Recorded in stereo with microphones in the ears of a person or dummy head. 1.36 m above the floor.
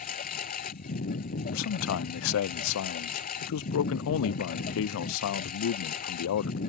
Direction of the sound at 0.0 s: 45° left (ahead or behind).